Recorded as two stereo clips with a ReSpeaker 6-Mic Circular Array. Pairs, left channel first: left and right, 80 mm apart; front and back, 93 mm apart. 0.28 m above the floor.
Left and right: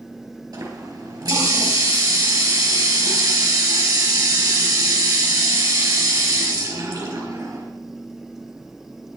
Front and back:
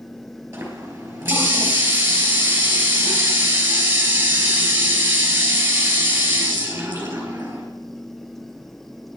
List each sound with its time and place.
0.5 s a running tap: 115° right, 4 m